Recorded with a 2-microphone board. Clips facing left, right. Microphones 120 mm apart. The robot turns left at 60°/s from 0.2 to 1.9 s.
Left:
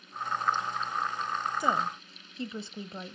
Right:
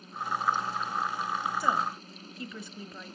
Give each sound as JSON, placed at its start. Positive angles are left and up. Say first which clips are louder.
{"t": 1.6, "sound": "a woman speaking", "louder": "left 1 dB", "side_deg": 20, "distance_m": 1.1}